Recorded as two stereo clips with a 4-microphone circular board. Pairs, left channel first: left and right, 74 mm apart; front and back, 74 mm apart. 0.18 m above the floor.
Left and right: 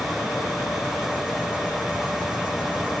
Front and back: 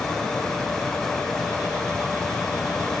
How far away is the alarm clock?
No alarm clock in this recording.